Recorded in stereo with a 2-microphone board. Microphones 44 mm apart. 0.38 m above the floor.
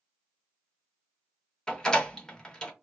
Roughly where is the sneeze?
No sneeze in this recording.